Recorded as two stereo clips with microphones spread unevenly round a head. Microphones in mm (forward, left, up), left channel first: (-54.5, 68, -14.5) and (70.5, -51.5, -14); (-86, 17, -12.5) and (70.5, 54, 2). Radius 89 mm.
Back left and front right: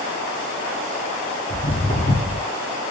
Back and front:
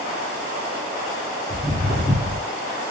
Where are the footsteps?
145° left, 1.3 m.